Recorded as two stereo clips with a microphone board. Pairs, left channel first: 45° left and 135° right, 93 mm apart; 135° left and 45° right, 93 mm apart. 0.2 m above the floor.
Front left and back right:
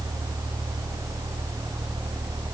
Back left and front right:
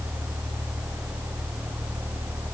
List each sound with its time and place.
Only background noise.